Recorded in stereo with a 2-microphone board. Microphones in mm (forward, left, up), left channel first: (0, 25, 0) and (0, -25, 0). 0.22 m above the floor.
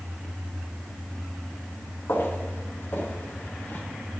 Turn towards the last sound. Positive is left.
turn(degrees=40)  # may be behind; listen again after turning